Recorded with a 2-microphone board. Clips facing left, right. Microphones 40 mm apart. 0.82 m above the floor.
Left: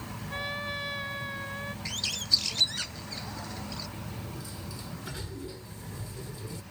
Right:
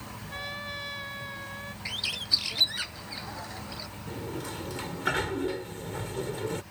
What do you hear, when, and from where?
0.3 s a trumpet: 10° left (ahead or behind)
1.9 s a bird: 15° right (ahead or behind)
4.1 s a sliding door: 70° right (ahead or behind)